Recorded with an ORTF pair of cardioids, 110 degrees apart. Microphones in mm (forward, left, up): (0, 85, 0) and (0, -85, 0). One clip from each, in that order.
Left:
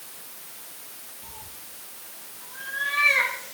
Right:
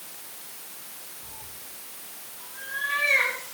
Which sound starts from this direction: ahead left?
A cat meowing, at 1.2 s.